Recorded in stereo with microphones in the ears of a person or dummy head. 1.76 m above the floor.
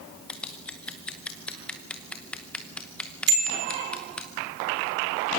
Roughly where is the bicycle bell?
Right.